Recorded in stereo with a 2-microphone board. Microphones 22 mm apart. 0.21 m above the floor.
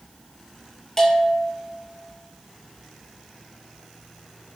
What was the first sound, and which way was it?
A bell, 15° left (ahead or behind).